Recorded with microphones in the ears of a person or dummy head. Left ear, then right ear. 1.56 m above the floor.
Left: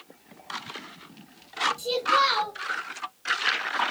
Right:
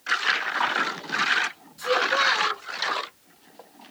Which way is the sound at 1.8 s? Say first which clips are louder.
Right 3 dB; 20° left (ahead or behind).